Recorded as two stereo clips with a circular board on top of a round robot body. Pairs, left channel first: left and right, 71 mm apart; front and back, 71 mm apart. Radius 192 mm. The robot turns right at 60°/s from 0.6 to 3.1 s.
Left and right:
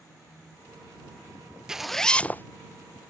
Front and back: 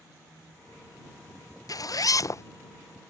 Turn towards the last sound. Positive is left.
turn(degrees=75)